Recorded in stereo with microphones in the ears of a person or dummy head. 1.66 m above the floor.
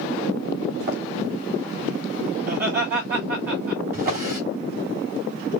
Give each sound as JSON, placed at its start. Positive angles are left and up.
{"t": 0.9, "sound": "running footsteps", "side_deg": -50, "distance_m": 4.0}
{"t": 2.4, "sound": "laughter", "side_deg": -50, "distance_m": 2.5}
{"t": 3.9, "sound": "a drawer", "side_deg": -50, "distance_m": 3.5}